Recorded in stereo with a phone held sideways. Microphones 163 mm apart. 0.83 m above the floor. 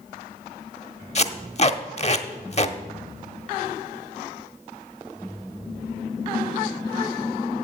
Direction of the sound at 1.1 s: 40° left (ahead or behind).